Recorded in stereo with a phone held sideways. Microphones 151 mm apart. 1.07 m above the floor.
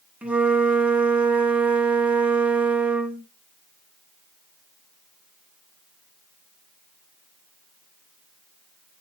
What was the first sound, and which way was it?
A flute, 10° right (ahead or behind).